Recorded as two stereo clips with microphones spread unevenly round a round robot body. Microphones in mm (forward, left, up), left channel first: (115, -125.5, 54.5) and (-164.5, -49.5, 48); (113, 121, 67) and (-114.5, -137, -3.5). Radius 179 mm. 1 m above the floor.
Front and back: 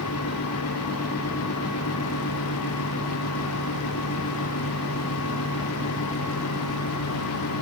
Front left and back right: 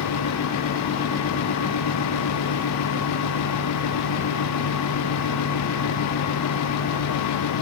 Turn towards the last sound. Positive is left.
No sound to turn to.